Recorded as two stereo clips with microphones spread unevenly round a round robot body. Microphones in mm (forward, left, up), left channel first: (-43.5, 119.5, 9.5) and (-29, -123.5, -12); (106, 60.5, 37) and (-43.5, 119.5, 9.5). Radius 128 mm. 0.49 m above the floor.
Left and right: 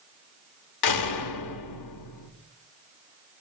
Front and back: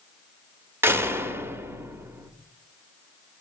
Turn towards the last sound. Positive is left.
turn(degrees=85)